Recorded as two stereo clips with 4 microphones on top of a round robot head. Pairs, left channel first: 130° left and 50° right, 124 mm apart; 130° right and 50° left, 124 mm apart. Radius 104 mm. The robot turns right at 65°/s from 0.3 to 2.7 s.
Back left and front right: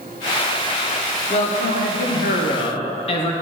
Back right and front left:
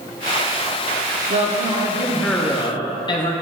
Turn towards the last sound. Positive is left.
turn(degrees=175)